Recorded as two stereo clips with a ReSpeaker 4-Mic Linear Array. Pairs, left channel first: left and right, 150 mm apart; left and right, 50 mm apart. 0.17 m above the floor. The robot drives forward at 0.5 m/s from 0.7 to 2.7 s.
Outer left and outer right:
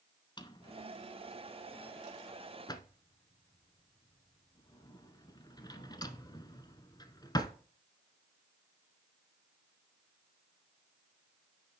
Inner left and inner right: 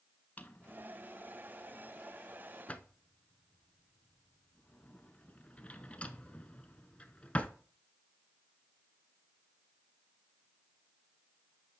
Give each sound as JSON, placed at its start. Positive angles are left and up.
{"t": 0.4, "sound": "a drawer", "side_deg": 30, "distance_m": 0.7}